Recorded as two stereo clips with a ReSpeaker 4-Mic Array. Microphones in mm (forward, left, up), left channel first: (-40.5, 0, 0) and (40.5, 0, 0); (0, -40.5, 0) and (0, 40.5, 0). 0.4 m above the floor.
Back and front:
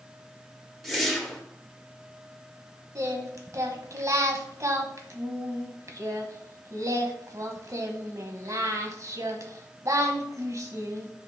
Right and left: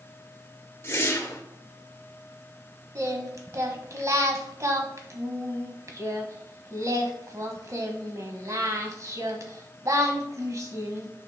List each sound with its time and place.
0.8 s a whoosh: 85° right, 1.3 m
3.0 s singing: 45° left, 1.2 m